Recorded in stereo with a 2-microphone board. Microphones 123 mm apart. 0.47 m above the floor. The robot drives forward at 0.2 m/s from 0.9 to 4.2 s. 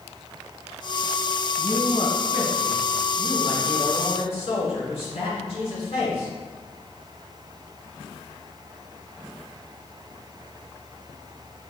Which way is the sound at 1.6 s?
65° left (ahead or behind).